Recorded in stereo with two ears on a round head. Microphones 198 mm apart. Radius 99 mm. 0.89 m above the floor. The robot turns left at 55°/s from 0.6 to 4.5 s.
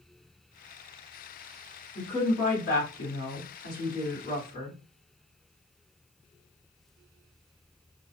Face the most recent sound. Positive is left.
turn(degrees=30)